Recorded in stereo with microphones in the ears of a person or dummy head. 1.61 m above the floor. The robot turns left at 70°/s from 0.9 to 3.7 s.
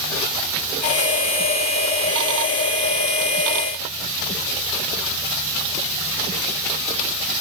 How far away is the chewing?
No chewing in this recording.